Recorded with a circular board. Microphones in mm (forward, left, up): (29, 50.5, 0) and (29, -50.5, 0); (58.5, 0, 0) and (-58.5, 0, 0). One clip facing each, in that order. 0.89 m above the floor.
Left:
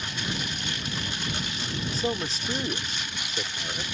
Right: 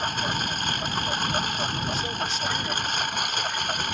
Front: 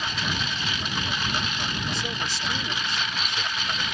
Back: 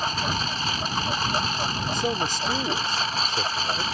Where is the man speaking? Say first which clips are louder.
Even, back 6 dB; 140° left.